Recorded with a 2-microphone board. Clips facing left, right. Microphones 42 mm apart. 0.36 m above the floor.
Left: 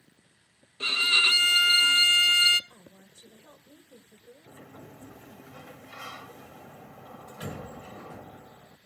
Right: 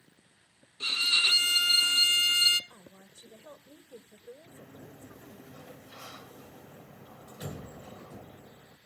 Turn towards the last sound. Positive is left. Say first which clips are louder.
# left 2 dB
turn(degrees=60)  # may be behind; listen again after turning